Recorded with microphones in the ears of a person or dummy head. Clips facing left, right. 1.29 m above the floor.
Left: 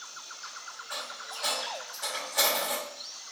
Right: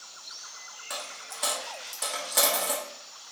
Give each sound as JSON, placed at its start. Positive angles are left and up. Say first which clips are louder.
{"t": 0.9, "sound": "a dropped coin", "louder": "right 2 dB", "side_deg": -45, "distance_m": 0.7}